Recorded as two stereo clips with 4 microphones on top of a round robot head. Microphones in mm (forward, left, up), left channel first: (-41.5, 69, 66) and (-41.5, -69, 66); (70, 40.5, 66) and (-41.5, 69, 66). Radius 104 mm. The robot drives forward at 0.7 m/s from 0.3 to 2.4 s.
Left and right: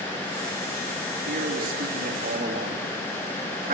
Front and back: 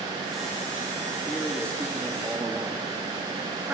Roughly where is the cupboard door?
No cupboard door in this recording.